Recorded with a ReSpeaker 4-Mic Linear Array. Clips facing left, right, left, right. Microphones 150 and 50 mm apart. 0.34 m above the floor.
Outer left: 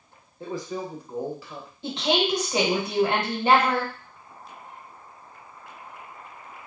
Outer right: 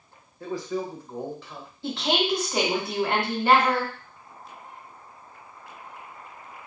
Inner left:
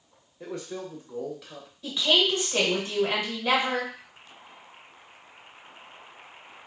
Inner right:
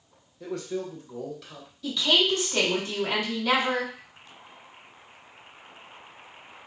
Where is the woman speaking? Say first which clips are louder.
Outer left 1 dB, even; 20° left (ahead or behind), 1.2 m.